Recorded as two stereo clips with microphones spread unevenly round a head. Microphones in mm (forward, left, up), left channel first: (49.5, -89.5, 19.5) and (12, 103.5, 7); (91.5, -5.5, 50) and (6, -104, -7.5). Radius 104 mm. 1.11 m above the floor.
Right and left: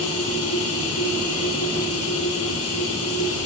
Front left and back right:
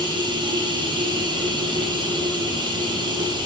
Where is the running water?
75° right, 9.5 m.